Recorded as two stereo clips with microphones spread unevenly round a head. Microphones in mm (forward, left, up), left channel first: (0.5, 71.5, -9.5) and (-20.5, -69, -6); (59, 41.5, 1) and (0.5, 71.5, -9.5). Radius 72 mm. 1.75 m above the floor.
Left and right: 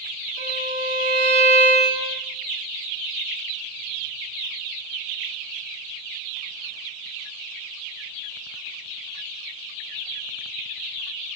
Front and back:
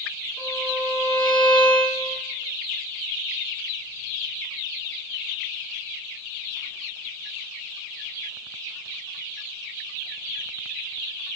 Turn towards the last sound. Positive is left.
turn(degrees=-95)